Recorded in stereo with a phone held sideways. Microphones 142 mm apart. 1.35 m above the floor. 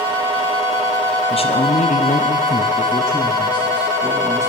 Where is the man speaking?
40° left (ahead or behind), 0.7 m; by 4.5 s 10° left (ahead or behind), 1.6 m.